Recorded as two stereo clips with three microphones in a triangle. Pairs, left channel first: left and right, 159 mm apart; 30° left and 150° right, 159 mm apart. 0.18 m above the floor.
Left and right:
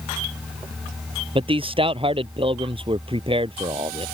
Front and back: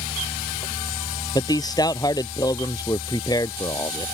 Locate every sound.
1.4 s a man speaking: 35° right